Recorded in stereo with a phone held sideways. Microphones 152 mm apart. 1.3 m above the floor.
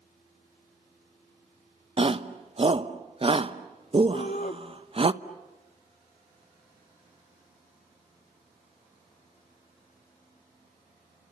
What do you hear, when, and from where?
2.0 s a shout: 40° right (ahead or behind), 1.0 m
4.1 s a shout: 55° left (ahead or behind), 0.9 m